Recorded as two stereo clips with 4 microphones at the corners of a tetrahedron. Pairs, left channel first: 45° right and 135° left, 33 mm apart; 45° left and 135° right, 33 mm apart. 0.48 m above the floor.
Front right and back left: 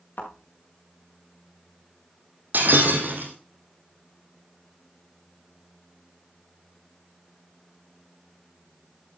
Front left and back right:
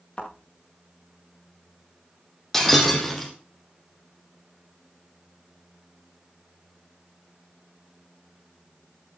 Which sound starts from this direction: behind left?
Breaking glass, at 2.5 s.